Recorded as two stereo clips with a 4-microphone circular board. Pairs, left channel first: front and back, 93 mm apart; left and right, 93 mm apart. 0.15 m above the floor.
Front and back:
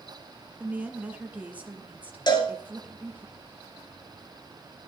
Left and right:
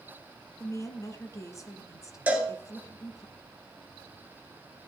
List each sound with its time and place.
0.6 s a woman speaking: 115° left, 1.5 m
2.3 s a cowbell: 20° right, 2.5 m